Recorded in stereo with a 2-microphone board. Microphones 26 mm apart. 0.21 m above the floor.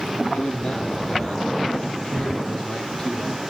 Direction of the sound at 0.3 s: 50° left (ahead or behind).